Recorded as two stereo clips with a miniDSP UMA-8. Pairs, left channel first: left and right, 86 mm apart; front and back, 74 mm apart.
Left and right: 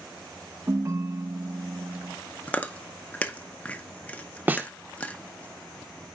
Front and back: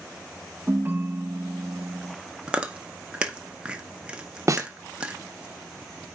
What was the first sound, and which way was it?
A ringtone, 125° right.